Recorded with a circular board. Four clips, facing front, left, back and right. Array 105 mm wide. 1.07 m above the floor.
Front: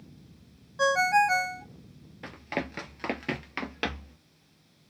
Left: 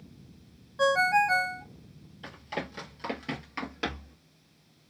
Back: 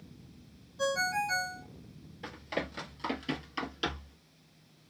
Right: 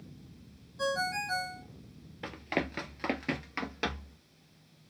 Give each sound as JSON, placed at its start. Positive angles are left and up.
{"t": 0.8, "sound": "a ringtone", "azimuth_deg": 45, "distance_m": 0.6}
{"t": 2.2, "sound": "running footsteps", "azimuth_deg": -60, "distance_m": 1.6}